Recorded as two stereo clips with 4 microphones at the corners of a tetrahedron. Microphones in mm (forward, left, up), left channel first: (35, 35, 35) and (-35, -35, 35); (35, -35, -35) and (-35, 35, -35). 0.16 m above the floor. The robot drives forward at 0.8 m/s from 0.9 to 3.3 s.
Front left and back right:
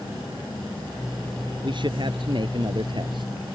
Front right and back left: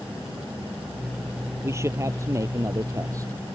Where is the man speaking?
165° right; by 3.3 s 170° right.